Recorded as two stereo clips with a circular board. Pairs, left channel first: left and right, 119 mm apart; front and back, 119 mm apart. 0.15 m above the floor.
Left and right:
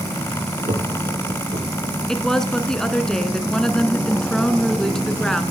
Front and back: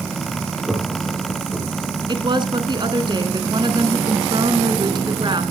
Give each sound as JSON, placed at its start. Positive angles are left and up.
{"t": 0.6, "sound": "laughter", "azimuth_deg": -95, "distance_m": 6.5}
{"t": 2.1, "sound": "a woman speaking", "azimuth_deg": 170, "distance_m": 1.9}